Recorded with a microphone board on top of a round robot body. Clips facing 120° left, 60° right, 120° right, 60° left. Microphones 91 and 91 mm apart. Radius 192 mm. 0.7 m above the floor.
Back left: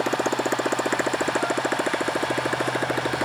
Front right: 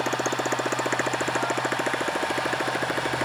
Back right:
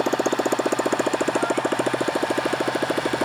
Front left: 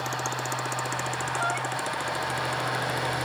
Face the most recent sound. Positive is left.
turn(degrees=-160)